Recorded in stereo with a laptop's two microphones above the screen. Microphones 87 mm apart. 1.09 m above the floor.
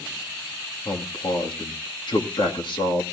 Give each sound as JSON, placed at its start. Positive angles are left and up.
{"t": 0.8, "sound": "a man speaking", "side_deg": 70, "distance_m": 1.9}